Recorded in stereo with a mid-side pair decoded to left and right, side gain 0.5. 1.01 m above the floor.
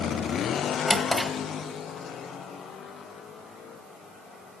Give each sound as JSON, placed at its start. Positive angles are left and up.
{"t": 0.9, "sound": "a drawer", "azimuth_deg": 15, "distance_m": 1.5}